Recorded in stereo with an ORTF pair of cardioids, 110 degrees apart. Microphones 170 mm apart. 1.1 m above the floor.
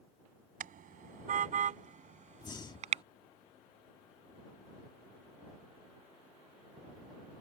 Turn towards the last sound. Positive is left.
turn(degrees=25)